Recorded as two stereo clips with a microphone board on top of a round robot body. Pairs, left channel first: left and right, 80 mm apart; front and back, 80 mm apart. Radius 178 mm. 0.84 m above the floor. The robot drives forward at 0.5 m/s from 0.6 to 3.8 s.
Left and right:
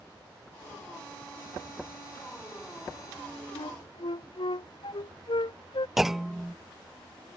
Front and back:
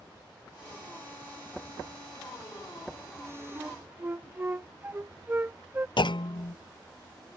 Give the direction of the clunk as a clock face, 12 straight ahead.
12 o'clock.